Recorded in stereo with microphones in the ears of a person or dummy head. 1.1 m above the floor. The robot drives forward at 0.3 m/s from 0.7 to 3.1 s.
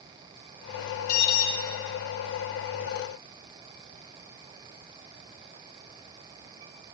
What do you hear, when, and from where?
1.1 s an alarm: 60° left (ahead or behind), 1.8 m; by 1.5 s 55° left (ahead or behind), 1.8 m